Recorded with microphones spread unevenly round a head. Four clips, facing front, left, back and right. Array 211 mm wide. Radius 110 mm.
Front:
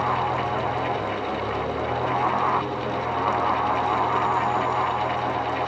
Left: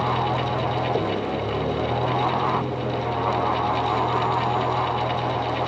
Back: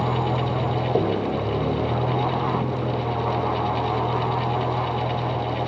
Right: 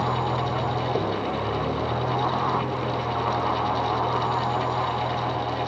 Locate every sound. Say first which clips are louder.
0.0 s a vehicle: left 2 dB, even; 170° left; by 5.7 s 165° left